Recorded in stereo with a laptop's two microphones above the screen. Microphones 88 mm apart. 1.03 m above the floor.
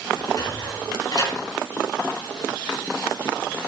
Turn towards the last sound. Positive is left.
turn(degrees=50)  # may be behind; listen again after turning